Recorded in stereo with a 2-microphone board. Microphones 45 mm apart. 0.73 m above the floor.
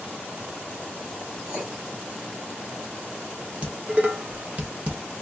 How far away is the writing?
About 3.5 m.